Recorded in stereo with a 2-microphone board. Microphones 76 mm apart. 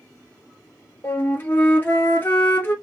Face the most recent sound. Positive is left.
turn(degrees=25)  # may be behind; listen again after turning